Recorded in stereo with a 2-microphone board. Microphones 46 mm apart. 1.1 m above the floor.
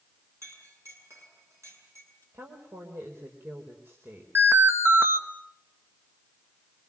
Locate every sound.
0.4 s a clink: 80° right, 8 m
2.3 s a woman speaking: 55° right (ahead or behind), 5 m
4.3 s an alarm: 65° right (ahead or behind), 2 m